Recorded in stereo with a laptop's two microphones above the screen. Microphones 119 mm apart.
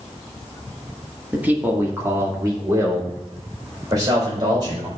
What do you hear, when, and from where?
1.3 s a man speaking: 10° right (ahead or behind), 1.6 m; by 4.9 s 35° right (ahead or behind), 4.5 m